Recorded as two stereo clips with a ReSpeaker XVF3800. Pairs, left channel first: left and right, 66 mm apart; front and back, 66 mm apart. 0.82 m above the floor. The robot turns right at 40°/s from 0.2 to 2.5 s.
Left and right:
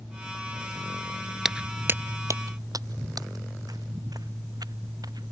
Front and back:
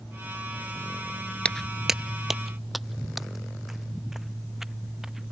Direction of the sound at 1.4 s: 20° right.